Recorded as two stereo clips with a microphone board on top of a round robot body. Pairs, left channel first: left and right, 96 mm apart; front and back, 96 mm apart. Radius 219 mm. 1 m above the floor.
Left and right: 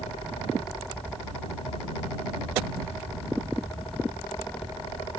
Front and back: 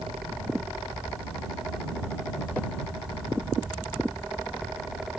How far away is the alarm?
I don't hear an alarm.